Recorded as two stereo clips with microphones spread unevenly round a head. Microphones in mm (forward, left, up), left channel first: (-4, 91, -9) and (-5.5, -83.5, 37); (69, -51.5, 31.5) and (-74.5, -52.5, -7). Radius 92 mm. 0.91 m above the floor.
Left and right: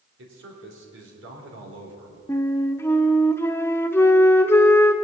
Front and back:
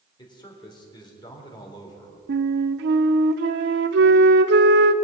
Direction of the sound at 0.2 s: 65° right.